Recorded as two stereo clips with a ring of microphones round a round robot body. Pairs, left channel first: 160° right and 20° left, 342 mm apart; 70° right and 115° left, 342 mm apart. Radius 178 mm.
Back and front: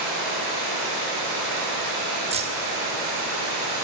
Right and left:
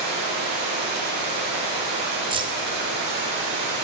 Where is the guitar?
No guitar in this recording.